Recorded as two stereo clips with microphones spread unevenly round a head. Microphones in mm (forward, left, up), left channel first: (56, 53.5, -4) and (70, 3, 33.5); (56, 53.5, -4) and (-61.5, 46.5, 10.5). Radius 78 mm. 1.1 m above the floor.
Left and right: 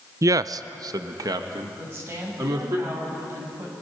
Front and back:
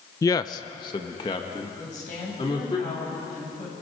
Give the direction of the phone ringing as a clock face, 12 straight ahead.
No phone ringing in this recording.